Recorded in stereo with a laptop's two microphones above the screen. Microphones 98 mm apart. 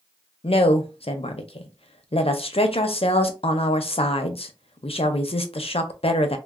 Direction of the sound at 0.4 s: 80° left.